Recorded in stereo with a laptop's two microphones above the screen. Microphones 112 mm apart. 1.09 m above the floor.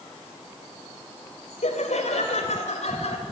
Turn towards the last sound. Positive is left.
turn(degrees=70)  # may be behind; listen again after turning